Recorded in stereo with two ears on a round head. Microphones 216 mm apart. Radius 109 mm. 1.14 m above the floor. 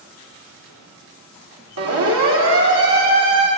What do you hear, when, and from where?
1.8 s a siren: 75° right (ahead or behind), 3 m; by 3.5 s 30° right (ahead or behind), 2.5 m